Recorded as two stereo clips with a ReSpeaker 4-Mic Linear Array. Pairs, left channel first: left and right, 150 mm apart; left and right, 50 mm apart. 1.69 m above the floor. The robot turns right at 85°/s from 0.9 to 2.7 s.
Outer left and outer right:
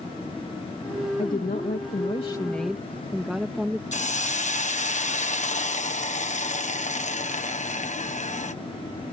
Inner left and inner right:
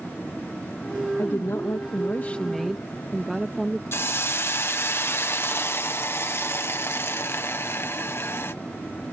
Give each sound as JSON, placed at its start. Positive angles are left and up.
{"t": 1.2, "sound": "a woman speaking", "azimuth_deg": 55}
{"t": 3.9, "sound": "a hiss", "side_deg": 50}